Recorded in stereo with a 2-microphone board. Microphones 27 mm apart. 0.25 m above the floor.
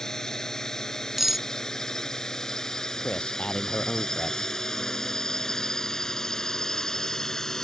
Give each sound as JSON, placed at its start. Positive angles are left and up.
{"t": 0.0, "sound": "a drone", "side_deg": 20}
{"t": 1.2, "sound": "cutlery clinking", "side_deg": -10}
{"t": 3.0, "sound": "a man speaking", "side_deg": 45}